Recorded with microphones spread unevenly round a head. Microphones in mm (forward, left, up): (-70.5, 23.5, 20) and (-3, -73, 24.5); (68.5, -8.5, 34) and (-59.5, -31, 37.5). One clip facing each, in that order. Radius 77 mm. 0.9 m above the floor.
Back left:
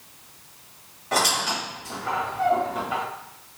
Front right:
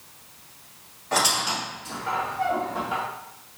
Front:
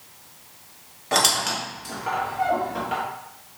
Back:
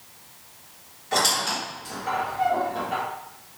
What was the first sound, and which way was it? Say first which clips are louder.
A squeak: back left 1 dB, front 1 dB; 40° left.